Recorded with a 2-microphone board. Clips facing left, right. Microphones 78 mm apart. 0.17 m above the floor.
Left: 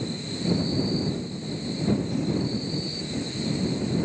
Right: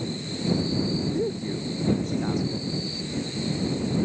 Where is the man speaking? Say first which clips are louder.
Right 5 dB; 75° right (ahead or behind).